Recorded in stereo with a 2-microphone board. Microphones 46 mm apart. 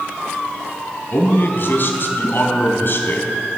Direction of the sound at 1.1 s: 50° left (ahead or behind).